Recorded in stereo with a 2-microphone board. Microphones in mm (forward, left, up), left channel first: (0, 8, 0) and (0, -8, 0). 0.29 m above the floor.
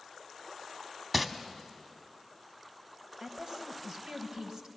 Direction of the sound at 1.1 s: 10° right (ahead or behind).